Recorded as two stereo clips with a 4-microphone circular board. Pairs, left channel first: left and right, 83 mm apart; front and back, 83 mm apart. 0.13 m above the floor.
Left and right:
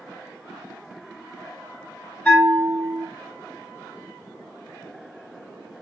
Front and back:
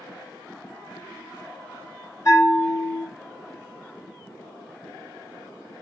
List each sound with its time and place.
2.2 s a bell: 20° left, 1.3 m